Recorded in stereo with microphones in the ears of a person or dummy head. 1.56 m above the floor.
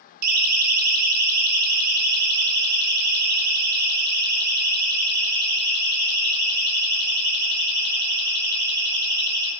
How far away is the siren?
About 4 m.